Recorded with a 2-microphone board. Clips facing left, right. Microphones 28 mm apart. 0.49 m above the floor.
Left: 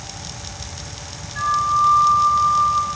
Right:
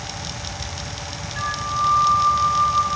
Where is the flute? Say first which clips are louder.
Left 6 dB; centre (ahead or behind), 3 m.